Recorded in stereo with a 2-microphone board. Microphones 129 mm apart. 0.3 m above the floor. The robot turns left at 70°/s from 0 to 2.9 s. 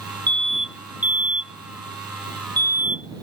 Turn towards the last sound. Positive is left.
turn(degrees=40)  # may be behind; listen again after turning